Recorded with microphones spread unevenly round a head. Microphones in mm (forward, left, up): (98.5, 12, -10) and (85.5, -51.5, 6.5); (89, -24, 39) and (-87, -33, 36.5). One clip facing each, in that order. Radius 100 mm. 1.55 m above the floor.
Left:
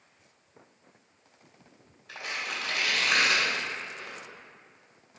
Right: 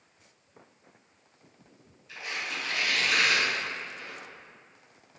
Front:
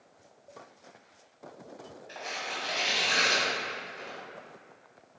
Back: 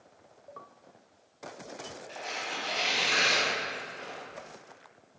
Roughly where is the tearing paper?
Left.